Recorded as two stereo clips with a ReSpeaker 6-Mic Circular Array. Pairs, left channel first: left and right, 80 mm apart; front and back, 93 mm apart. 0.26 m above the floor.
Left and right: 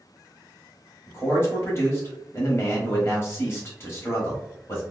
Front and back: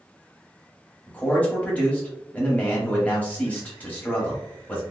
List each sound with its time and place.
1.1 s a man speaking: 60° left, 1.1 m